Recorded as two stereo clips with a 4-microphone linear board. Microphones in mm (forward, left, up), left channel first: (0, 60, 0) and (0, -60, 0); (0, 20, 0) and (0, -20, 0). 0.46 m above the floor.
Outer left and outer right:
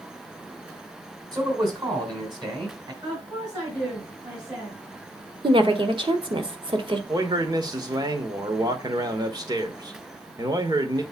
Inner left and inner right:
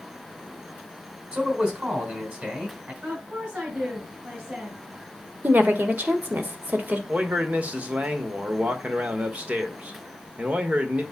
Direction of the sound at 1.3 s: 35° right (ahead or behind).